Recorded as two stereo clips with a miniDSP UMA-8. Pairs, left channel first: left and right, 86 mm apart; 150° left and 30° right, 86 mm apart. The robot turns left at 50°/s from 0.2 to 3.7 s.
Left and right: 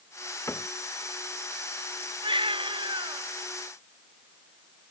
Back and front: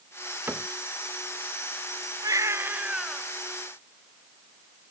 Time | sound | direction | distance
0.5 | a cupboard door | 35° left | ?
2.2 | a baby crying | 75° right | ?